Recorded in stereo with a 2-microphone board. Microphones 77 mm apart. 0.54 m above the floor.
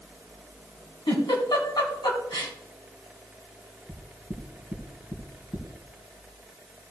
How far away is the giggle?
About 3 m.